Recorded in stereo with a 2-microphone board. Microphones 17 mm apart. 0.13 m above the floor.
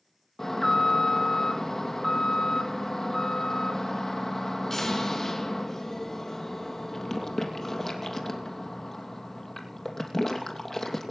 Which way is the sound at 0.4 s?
25° left (ahead or behind).